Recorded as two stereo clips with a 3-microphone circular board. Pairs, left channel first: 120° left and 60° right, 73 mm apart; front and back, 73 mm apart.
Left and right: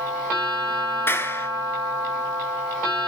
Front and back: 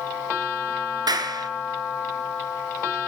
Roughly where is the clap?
Behind.